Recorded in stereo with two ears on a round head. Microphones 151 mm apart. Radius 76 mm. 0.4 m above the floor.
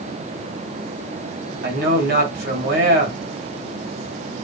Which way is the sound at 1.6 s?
60° right (ahead or behind).